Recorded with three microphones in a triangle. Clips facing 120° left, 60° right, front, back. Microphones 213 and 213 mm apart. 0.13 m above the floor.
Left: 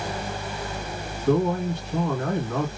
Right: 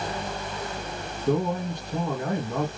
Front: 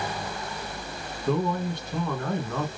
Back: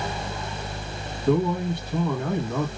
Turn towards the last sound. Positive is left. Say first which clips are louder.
# left 3 dB, back 4 dB
turn(degrees=-110)